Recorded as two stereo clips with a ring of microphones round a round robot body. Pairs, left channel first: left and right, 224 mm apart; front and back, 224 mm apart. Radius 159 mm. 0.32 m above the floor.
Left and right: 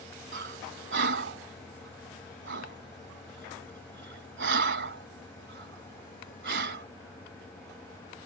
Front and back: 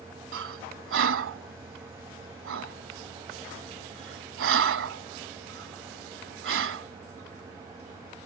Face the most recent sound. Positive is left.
turn(degrees=-140)